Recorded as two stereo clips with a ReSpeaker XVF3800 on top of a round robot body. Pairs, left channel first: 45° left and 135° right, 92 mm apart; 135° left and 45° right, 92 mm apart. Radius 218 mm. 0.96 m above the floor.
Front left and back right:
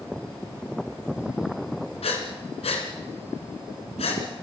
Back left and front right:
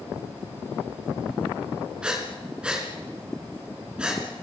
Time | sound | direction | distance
2.0 | breathing | 35° left | 3.5 m